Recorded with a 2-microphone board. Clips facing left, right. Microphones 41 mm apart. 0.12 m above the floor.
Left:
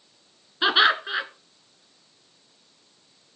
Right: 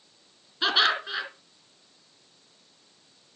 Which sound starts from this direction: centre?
Laughter, at 0.6 s.